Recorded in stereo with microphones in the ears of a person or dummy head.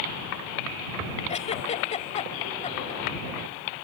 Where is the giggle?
30° left (ahead or behind).